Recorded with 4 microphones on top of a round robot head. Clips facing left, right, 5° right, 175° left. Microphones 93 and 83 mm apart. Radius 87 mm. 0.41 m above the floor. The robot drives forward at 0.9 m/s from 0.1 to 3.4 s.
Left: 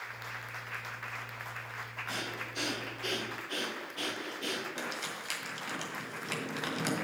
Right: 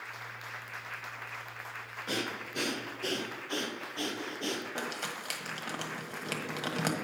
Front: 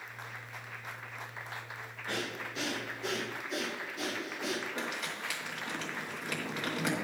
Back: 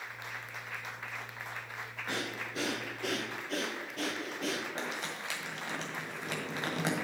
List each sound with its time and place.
2.1 s breathing: 105° right, 1.0 m; by 4.7 s 150° right, 1.8 m
4.8 s crumpling: 125° right, 1.6 m